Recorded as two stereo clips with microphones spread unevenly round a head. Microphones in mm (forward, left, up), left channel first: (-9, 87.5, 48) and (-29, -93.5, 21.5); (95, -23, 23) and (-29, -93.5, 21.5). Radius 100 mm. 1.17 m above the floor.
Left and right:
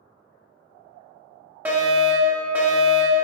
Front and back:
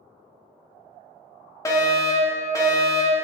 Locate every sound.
1.6 s a fire alarm: 30° right, 1.3 m